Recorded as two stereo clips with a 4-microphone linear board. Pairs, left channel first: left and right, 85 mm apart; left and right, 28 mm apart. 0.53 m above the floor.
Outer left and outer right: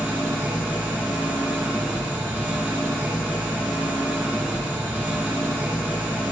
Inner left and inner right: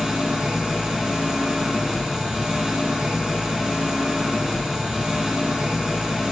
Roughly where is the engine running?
Right.